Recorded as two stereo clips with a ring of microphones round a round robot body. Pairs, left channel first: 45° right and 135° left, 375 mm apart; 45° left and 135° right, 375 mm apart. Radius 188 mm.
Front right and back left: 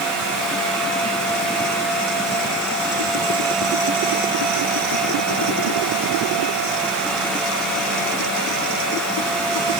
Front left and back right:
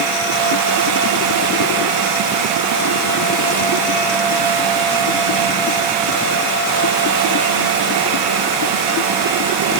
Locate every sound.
Only background noise.